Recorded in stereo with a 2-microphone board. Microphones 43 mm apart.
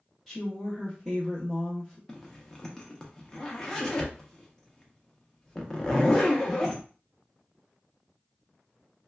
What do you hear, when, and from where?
0.3 s a woman speaking: 5° right (ahead or behind), 0.8 m
2.1 s a zipper: 10° left (ahead or behind), 0.6 m